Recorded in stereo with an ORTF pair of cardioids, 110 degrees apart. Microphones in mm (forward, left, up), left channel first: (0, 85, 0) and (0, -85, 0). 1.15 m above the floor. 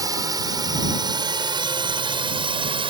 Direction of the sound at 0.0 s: 20° right.